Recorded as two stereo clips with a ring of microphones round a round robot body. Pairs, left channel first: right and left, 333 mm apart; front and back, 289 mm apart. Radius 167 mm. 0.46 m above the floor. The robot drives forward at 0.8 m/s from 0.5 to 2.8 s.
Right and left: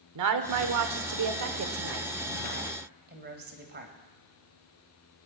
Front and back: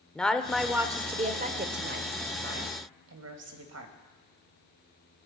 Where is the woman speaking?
85° left, 1.3 m; by 3.9 s 150° left, 2 m.